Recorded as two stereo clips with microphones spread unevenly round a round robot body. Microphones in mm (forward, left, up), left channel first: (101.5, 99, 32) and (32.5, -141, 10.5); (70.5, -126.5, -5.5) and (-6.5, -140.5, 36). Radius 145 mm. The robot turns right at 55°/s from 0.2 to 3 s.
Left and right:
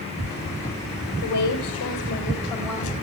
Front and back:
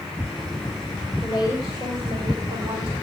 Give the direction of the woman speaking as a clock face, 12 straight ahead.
9 o'clock.